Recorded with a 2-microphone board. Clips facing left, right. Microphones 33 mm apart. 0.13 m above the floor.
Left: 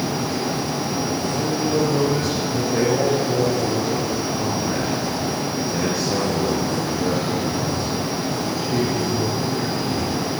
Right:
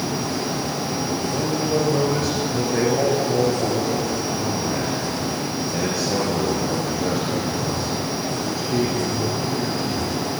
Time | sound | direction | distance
1.3 | a man speaking | centre (ahead or behind) | 2.5 m